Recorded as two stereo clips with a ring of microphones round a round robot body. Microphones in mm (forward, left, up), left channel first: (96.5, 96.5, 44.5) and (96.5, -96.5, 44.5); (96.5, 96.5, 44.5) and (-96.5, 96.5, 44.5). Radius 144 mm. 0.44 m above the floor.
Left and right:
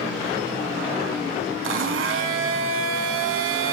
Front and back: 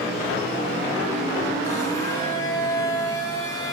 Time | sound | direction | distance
1.6 | a blender | 80° right | 0.7 m